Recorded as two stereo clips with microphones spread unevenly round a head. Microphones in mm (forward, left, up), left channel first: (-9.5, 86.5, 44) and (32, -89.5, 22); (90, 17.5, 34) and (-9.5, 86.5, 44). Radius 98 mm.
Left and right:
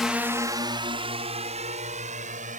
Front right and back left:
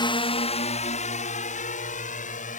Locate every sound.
0.0 s a drone: 10° left; by 2.6 s 25° right